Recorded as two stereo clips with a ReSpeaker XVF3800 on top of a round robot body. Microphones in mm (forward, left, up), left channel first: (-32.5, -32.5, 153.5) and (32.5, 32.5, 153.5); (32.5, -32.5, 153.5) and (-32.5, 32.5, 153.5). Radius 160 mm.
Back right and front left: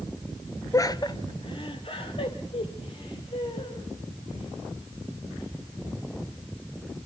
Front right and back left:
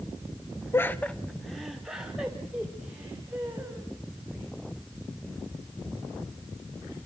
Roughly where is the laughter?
Right.